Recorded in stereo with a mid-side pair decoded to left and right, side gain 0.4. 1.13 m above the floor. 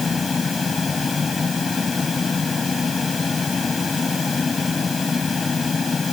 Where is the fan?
35° left.